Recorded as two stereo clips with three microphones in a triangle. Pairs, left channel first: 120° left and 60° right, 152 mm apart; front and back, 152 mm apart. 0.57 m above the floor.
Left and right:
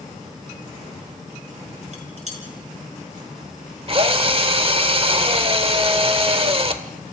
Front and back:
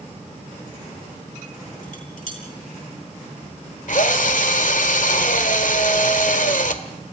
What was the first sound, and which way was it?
Dishes clattering, 20° right.